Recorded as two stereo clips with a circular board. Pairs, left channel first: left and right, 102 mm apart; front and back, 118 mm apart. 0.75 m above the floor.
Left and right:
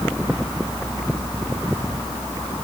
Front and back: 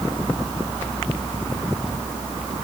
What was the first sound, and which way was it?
Only background noise.